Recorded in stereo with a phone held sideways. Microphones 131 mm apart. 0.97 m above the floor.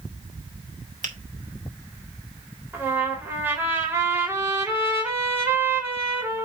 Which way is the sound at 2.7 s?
15° right (ahead or behind).